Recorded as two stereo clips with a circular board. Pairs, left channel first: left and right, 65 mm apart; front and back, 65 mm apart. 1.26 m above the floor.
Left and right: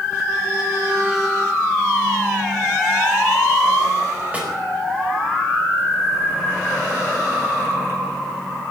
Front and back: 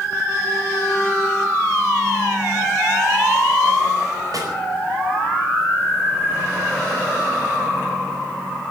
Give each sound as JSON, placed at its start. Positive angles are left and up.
{"t": 4.3, "sound": "a snare drum", "azimuth_deg": -160, "distance_m": 4.5}